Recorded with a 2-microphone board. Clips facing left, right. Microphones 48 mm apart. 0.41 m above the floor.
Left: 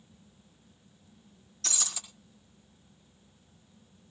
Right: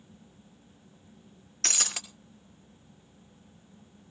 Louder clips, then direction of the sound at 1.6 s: Right 5 dB; 60° right (ahead or behind).